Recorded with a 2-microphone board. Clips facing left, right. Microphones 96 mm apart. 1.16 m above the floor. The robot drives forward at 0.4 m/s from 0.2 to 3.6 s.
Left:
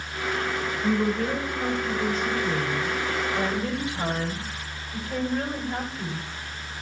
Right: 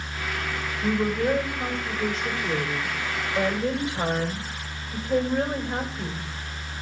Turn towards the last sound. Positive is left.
turn(degrees=-25)  # may be behind; listen again after turning